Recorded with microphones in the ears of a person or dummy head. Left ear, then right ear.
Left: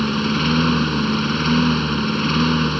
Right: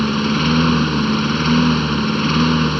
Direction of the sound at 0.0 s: Centre (ahead or behind).